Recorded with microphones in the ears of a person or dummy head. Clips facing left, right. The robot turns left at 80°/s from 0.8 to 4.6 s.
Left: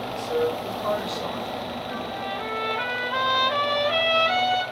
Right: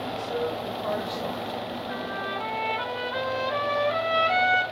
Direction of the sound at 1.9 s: 145° right.